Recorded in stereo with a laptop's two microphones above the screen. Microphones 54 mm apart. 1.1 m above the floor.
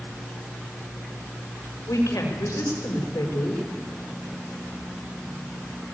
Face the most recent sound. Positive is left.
turn(degrees=80)